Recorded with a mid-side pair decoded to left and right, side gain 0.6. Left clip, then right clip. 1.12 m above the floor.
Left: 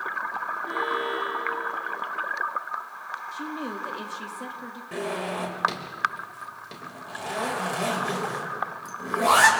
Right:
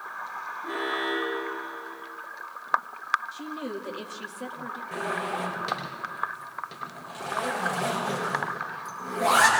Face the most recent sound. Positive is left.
turn(degrees=15)